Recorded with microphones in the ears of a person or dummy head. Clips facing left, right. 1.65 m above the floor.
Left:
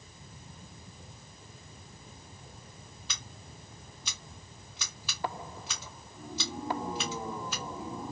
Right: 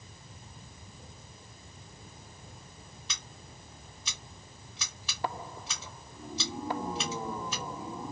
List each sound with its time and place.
3.1 s scissors: 5° left (ahead or behind), 0.8 m